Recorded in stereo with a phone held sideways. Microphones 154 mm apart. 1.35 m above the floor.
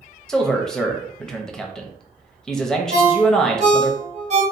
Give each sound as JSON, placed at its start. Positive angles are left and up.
{"t": 0.3, "sound": "a man speaking", "side_deg": 5, "distance_m": 0.6}
{"t": 2.9, "sound": "a ringtone", "side_deg": -45, "distance_m": 0.8}